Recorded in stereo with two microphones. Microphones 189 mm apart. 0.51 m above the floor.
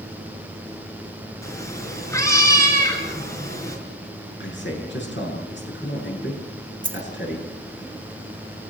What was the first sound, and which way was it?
A cat meowing, 15° left (ahead or behind).